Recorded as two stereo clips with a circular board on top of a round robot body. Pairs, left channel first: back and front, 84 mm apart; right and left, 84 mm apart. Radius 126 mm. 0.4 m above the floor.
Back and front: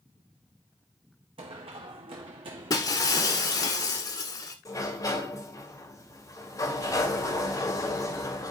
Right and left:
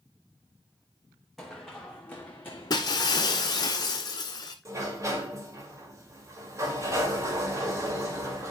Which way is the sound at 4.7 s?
135° left.